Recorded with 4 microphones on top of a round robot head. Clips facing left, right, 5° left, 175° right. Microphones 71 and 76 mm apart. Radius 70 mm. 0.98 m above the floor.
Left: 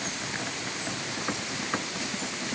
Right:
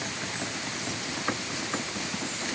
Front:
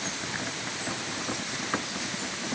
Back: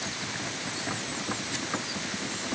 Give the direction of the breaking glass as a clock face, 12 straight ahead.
I don't hear breaking glass.